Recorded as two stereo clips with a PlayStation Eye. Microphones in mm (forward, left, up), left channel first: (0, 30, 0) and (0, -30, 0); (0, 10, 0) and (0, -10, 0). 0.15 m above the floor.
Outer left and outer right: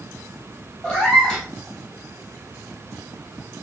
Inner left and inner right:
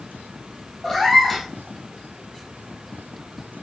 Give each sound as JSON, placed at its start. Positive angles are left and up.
{"t": 0.8, "sound": "a cat meowing", "side_deg": 15, "distance_m": 2.0}